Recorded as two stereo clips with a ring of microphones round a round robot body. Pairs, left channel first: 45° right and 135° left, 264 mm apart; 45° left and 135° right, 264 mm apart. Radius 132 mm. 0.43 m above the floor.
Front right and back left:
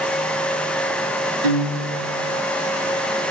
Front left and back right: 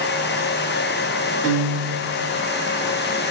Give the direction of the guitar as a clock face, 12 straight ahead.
8 o'clock.